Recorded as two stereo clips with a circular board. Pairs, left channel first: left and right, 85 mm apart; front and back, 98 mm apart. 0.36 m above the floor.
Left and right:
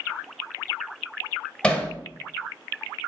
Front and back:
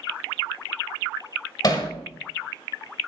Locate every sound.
1.6 s hammering: 20° left, 1.6 m